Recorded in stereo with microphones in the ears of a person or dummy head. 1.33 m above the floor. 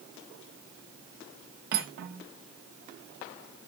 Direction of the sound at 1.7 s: 50° right (ahead or behind).